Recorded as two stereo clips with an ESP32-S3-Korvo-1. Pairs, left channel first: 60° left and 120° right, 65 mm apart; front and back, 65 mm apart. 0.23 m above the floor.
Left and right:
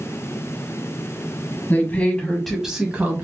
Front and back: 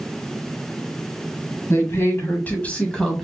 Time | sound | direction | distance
1.7 | a woman speaking | 10° left | 1.4 m